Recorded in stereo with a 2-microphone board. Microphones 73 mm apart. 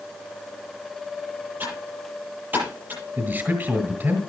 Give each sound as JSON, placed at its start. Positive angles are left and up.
{"t": 1.6, "sound": "typing on a keyboard", "side_deg": -25, "distance_m": 9.5}
{"t": 3.2, "sound": "a man speaking", "side_deg": -30, "distance_m": 1.6}